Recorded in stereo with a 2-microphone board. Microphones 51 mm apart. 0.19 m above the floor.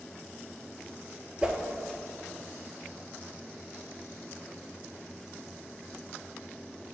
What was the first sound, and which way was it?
A whoosh, 20° right (ahead or behind).